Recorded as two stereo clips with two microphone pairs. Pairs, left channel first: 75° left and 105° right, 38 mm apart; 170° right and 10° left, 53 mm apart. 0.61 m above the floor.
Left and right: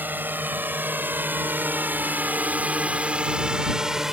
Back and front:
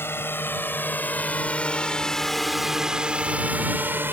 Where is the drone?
135° right; by 4.1 s 30° right.